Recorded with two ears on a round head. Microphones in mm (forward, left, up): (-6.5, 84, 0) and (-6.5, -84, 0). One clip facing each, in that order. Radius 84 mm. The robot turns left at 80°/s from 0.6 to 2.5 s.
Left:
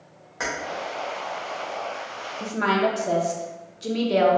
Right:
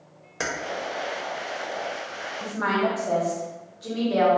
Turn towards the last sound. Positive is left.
turn(degrees=30)  # may be behind; listen again after turning